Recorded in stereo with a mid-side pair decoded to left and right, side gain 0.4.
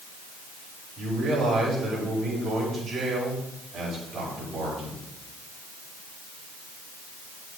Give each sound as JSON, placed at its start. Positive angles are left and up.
{"t": 1.0, "sound": "a man speaking", "azimuth_deg": -65, "distance_m": 5.0}